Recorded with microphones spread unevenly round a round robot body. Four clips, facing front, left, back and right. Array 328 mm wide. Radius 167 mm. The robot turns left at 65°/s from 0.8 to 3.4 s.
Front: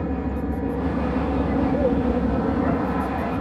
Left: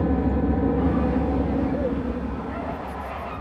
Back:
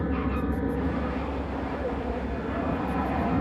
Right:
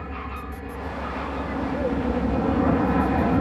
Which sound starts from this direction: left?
An aircraft, at 0.0 s.